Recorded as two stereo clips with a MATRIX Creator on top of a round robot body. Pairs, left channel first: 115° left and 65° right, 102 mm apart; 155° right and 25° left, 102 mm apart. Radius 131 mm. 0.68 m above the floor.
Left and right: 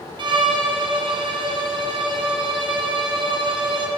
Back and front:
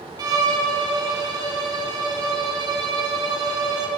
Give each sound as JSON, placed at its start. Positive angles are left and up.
{"t": 0.2, "sound": "a violin", "azimuth_deg": -30, "distance_m": 2.5}